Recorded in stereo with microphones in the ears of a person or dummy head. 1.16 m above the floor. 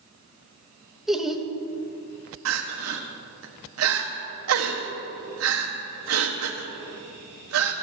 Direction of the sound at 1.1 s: Centre (ahead or behind).